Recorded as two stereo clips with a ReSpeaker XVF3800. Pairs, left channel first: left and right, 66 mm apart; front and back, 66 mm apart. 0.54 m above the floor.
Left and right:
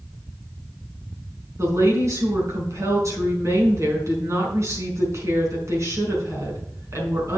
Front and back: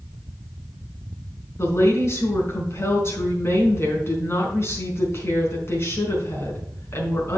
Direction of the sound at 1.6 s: 50° right.